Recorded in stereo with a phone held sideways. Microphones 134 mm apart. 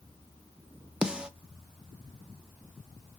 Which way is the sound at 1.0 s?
5° right (ahead or behind).